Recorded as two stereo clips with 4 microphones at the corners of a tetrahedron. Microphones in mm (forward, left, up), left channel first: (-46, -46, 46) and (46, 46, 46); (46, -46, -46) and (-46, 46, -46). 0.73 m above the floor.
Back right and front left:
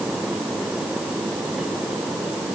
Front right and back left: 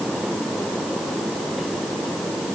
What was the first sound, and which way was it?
Only background noise.